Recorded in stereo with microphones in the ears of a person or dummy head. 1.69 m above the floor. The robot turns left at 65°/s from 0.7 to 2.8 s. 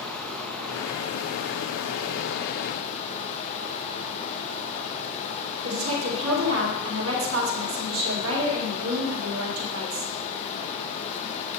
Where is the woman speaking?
85° right, 2.5 m.